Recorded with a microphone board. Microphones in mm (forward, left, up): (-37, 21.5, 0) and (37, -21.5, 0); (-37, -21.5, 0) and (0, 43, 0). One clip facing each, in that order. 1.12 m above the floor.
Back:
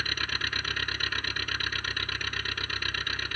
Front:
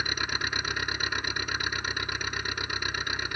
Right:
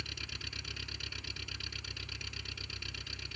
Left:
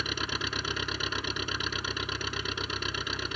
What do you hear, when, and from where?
0.0 s an engine running: 45° left